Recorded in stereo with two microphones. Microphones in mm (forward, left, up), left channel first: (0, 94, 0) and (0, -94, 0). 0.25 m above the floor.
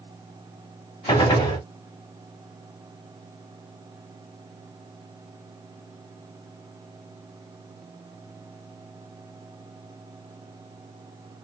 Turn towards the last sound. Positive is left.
turn(degrees=25)  # may be behind; listen again after turning